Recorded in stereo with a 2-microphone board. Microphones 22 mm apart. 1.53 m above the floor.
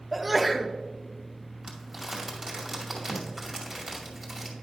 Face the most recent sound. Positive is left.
turn(degrees=-10)  # may be behind; listen again after turning